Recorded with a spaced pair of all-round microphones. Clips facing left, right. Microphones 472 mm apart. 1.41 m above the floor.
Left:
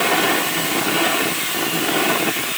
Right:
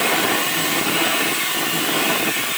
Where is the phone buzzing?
No phone buzzing in this recording.